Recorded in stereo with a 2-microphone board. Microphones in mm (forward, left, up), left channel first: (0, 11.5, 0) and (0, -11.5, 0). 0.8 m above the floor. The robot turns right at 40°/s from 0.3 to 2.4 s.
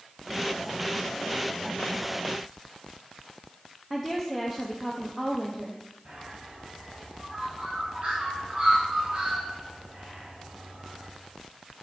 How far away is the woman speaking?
About 0.8 m.